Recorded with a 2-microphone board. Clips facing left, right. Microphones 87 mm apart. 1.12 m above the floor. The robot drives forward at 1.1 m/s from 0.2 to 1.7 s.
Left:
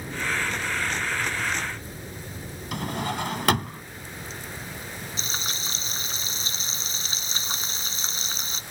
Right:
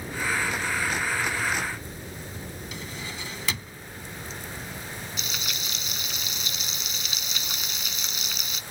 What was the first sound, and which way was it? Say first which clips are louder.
A drawer: left 14 dB; 60° left (ahead or behind).